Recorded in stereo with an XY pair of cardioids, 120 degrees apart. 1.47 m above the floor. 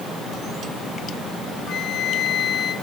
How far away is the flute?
About 1.4 m.